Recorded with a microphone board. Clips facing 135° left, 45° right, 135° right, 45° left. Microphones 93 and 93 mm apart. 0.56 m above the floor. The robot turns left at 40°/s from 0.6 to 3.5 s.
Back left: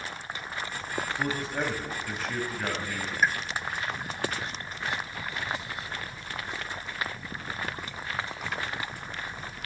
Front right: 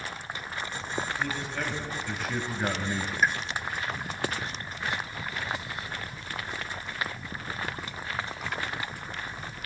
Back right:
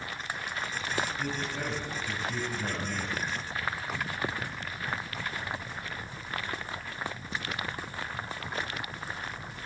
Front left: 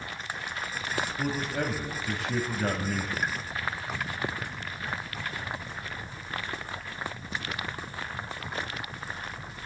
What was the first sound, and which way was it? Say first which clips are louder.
A man speaking: back left 2 dB, front left 4 dB; 85° left.